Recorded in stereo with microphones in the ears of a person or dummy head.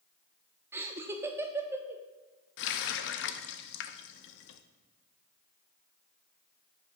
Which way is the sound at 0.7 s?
10° right (ahead or behind).